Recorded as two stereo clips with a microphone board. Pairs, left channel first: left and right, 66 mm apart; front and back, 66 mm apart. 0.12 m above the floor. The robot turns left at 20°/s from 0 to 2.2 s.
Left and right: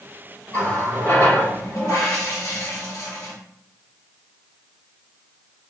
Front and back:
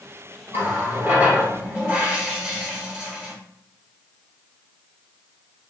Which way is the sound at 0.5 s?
145° left.